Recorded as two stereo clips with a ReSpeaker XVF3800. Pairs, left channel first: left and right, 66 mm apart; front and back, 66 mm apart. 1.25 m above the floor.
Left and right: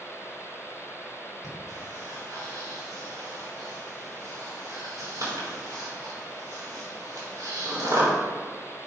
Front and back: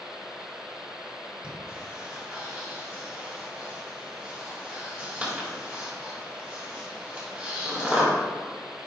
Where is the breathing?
105° right, 3.5 m.